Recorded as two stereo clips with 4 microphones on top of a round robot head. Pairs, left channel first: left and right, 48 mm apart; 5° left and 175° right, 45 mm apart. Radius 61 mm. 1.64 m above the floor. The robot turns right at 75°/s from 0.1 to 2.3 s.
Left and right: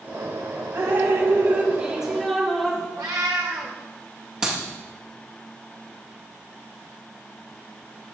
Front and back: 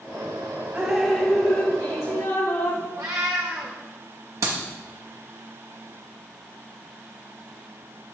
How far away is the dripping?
About 2.5 m.